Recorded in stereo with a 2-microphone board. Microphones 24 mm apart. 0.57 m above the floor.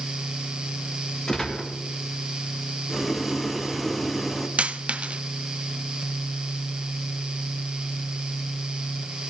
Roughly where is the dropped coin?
Right.